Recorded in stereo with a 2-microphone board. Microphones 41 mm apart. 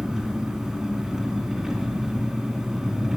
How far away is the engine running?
About 3 m.